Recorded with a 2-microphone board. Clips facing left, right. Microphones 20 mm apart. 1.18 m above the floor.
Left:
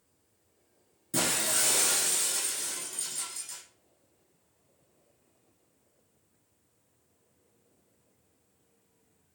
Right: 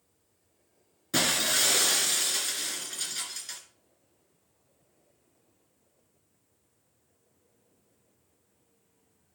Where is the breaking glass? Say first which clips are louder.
Right 4 dB; 45° right (ahead or behind), 3 m.